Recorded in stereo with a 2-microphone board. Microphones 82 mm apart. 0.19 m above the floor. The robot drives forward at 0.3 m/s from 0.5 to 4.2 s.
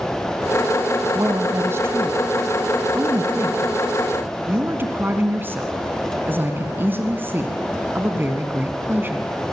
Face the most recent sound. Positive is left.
turn(degrees=-25)  # may be behind; listen again after turning